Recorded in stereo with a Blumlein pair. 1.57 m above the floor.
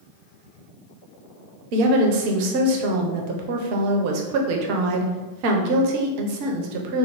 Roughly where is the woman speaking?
Ahead right.